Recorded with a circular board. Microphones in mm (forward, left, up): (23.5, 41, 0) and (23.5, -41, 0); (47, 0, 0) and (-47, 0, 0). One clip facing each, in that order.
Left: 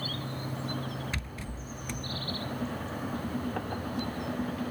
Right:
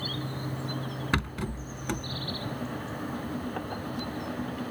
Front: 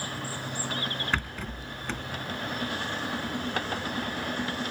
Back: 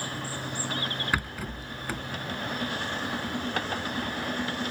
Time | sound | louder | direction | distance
1.1 | a rattle | right 9 dB, back 1 dB | 100° right | ?